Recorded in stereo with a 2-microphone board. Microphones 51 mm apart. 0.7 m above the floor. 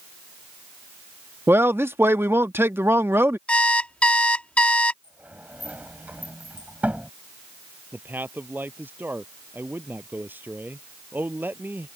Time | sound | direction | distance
1.5 | a man speaking | 50° right (ahead or behind) | ?
3.5 | an alarm clock | 25° left (ahead or behind) | ?
5.0 | a sliding door | 30° right (ahead or behind) | ?
7.9 | a man speaking | 40° right (ahead or behind) | ?